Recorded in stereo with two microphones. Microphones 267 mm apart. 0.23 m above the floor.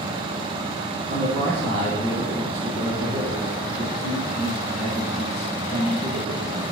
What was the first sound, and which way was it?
A man speaking, 25° left (ahead or behind).